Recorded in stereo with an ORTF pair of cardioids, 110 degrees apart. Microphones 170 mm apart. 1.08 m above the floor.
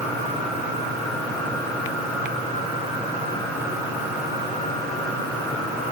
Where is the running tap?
I don't hear a running tap.